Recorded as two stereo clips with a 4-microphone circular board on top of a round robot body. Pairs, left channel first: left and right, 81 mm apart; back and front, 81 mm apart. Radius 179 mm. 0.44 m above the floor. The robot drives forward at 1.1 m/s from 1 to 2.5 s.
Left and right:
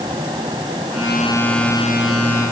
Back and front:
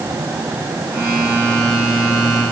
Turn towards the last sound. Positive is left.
No sound to turn to.